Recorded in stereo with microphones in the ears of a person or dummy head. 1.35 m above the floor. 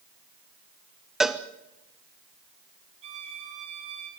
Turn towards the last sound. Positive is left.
turn(degrees=-35)  # may be behind; listen again after turning